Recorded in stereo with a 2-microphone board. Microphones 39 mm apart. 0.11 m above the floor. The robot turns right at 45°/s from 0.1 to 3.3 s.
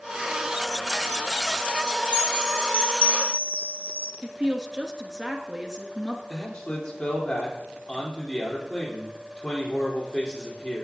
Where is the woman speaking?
5° right (ahead or behind), 1.3 m.